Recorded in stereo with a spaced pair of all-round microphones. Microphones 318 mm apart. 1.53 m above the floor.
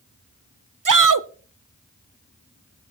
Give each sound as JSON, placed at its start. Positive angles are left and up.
{"t": 0.8, "sound": "a shout", "side_deg": -75, "distance_m": 0.6}